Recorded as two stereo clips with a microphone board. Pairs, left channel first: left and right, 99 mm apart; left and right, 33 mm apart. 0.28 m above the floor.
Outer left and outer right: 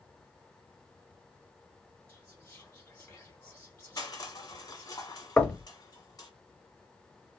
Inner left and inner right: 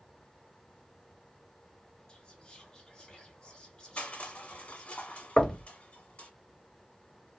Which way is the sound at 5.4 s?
15° left (ahead or behind).